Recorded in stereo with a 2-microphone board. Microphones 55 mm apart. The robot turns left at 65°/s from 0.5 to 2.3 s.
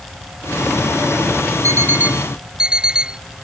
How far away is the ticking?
I don't hear ticking.